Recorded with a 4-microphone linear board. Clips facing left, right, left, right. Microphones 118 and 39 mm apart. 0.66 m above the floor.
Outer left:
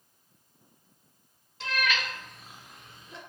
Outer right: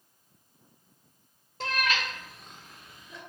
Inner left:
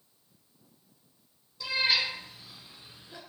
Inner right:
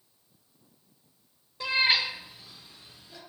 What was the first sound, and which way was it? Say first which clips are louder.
A cat meowing: outer right 1 dB, inner right 3 dB; 50° right (ahead or behind).